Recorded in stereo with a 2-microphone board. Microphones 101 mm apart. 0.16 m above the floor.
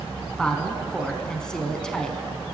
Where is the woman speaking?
10° left (ahead or behind), 1.2 m.